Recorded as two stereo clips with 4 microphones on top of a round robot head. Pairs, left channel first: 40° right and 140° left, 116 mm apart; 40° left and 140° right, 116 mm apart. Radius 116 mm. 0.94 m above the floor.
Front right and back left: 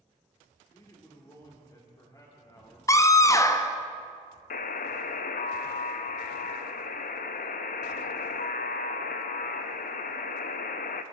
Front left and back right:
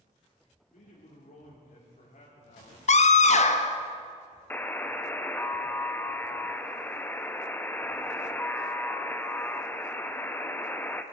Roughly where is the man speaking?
Ahead left.